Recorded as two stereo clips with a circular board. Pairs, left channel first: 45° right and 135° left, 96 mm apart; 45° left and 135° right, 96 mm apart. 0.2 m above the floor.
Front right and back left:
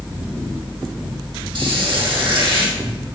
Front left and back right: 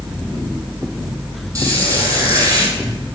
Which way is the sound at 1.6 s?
170° left.